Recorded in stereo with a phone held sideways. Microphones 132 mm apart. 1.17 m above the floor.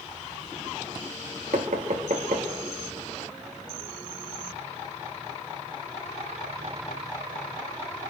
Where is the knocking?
70° right (ahead or behind), 2 m.